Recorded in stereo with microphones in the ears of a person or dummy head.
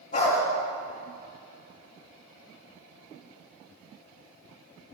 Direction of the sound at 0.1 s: 35° left (ahead or behind).